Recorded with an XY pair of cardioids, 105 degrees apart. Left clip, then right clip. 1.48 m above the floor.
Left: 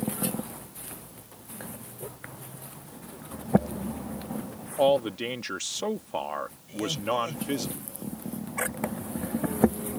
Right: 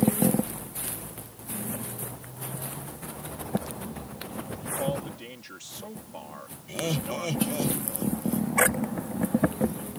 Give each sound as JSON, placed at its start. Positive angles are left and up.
{"t": 4.8, "sound": "a man speaking", "azimuth_deg": 70}
{"t": 6.7, "sound": "laughter", "azimuth_deg": -50}